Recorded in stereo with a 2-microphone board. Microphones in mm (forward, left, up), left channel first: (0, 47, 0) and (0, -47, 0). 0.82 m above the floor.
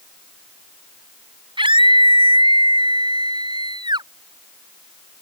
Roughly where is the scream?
Right.